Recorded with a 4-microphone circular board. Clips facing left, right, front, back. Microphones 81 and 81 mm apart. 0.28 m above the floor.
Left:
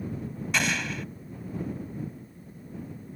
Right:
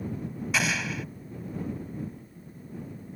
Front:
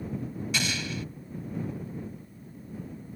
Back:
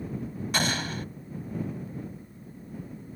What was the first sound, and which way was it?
An explosion, 175° right.